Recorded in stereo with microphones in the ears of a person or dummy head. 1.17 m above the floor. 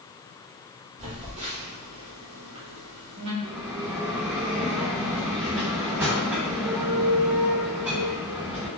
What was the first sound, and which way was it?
A phone buzzing, 30° right (ahead or behind).